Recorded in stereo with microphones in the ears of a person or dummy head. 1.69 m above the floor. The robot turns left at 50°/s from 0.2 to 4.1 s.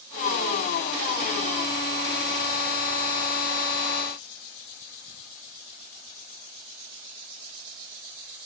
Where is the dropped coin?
I don't hear a dropped coin.